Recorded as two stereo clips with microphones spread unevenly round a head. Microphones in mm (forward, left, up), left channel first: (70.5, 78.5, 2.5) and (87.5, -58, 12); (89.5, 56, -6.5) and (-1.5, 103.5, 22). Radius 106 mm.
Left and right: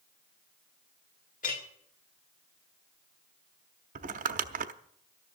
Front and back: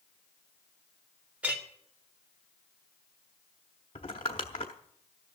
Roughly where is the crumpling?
Right.